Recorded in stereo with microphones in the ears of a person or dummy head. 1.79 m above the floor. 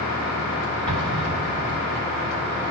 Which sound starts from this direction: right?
An explosion, at 0.9 s.